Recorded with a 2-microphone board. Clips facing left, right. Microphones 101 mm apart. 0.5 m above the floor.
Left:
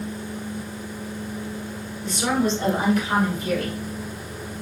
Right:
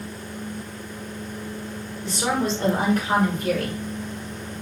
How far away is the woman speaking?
About 1.9 m.